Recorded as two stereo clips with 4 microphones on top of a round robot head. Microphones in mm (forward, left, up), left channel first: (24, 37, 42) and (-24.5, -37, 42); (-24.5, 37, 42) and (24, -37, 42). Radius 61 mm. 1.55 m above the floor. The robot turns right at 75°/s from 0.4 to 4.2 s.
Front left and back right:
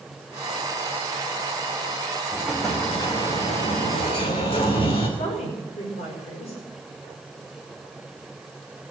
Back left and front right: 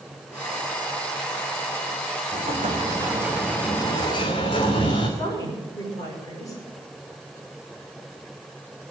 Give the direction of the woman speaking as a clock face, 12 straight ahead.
10 o'clock.